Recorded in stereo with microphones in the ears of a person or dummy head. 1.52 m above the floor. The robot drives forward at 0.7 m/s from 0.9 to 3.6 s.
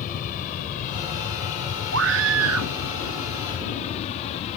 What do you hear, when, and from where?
0.0 s an aircraft: 45° left (ahead or behind); by 4.6 s 35° left (ahead or behind)
1.9 s a scream: 65° right (ahead or behind); by 2.7 s 75° right (ahead or behind)